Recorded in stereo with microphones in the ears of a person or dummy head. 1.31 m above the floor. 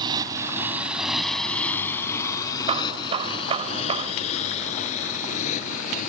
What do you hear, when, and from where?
0.0 s a motorcycle: 30° right (ahead or behind); by 6.1 s 45° left (ahead or behind)
2.7 s hammering: 30° right (ahead or behind)